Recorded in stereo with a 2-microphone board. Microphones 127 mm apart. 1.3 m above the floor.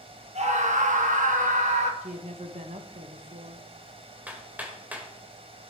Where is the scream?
60° right (ahead or behind), 1.6 m; by 1.9 s 65° right (ahead or behind), 1.9 m.